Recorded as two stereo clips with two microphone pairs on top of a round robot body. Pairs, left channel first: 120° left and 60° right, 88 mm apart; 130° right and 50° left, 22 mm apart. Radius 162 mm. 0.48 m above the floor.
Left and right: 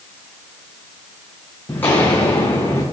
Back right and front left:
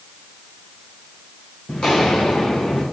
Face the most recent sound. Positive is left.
turn(degrees=-175)